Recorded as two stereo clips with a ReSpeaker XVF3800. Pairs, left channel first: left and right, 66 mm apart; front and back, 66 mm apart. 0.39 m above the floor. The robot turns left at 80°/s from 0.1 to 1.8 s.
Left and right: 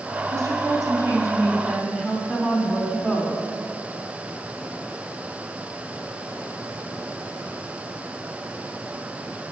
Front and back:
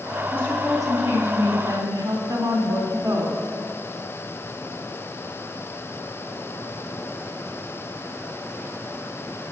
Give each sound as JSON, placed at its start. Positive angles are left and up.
{"t": 0.3, "sound": "a woman speaking", "azimuth_deg": -50, "distance_m": 3.0}